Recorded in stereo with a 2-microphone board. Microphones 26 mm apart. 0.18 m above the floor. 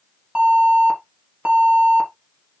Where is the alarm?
60° right (ahead or behind), 4.5 m.